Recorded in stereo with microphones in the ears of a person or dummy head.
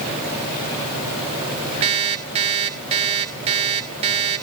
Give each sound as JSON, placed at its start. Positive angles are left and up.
{"t": 1.8, "sound": "an alarm clock", "side_deg": -35, "distance_m": 3.0}